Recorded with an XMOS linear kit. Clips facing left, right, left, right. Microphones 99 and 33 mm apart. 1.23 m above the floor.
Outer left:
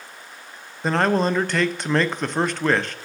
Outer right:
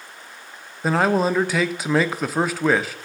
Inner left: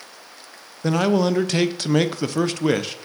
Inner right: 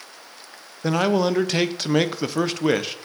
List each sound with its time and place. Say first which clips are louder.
0.8 s a man speaking: outer right 1 dB, inner left 1 dB; 5° right (ahead or behind), 0.6 m